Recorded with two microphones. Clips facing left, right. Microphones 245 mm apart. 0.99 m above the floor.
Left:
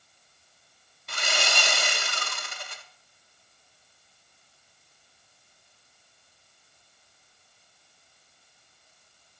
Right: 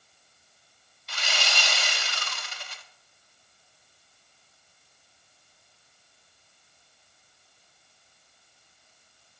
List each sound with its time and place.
1.1 s sawing: 55° left (ahead or behind), 1.1 m